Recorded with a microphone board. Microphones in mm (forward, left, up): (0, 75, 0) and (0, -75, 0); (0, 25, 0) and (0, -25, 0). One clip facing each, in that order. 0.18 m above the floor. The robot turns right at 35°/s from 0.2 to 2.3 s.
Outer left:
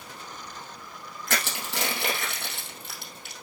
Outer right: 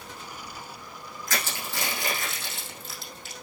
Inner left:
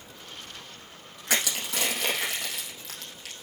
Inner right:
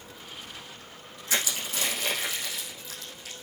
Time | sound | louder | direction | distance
1.3 | crushing | outer left 2 dB, inner left 2 dB | 75° left (ahead or behind) | 3 m